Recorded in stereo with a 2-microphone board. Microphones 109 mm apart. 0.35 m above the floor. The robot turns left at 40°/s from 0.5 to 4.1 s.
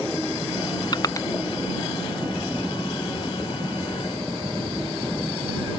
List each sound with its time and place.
0.9 s crushing: 40° left (ahead or behind); by 1.3 s 25° left (ahead or behind)